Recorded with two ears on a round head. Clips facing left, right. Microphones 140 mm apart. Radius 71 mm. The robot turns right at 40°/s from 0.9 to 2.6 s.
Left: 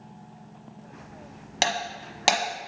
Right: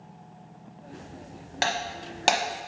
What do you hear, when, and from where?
1.6 s breaking glass: 30° left (ahead or behind), 1.0 m; by 2.7 s 10° right (ahead or behind), 1.0 m